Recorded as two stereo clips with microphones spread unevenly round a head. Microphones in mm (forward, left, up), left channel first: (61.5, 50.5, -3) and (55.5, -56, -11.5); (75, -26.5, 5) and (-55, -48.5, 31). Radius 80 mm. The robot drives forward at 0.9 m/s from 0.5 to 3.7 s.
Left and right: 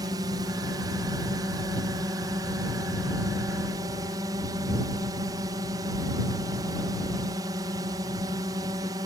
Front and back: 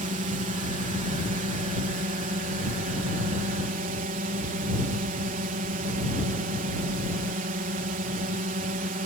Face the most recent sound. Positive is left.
turn(degrees=-155)